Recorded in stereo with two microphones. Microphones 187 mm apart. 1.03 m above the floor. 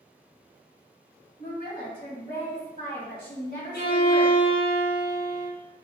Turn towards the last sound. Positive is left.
turn(degrees=60)  # may be behind; listen again after turning